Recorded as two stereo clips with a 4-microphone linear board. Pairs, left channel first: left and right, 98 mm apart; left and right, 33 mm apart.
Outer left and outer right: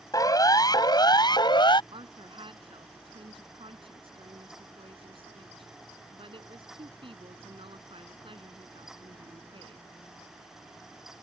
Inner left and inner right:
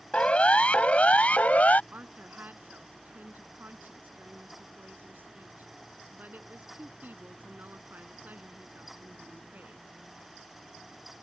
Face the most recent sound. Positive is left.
turn(degrees=-65)  # may be behind; listen again after turning